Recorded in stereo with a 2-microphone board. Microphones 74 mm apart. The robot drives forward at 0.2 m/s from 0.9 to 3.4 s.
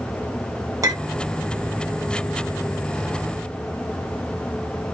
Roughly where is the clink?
Right.